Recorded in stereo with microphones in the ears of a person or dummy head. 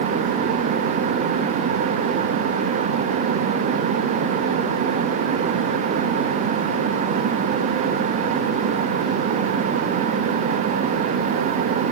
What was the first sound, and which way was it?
Only background noise.